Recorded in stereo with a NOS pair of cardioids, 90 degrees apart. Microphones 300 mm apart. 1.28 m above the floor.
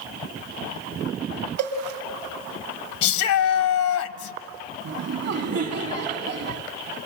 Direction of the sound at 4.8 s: 55° right.